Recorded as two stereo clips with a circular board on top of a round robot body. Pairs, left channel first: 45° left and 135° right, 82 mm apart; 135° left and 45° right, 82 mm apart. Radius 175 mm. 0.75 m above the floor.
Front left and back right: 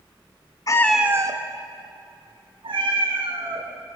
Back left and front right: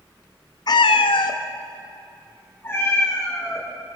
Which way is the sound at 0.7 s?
95° left.